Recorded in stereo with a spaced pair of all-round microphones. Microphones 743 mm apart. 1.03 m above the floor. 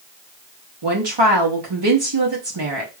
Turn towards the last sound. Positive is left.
turn(degrees=-35)  # may be behind; listen again after turning